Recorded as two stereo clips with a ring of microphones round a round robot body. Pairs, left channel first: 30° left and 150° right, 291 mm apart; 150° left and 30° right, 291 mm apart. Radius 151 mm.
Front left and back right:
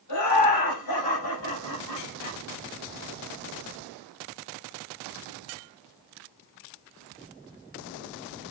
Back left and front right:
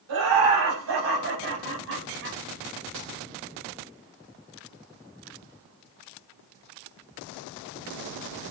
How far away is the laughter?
About 6.5 m.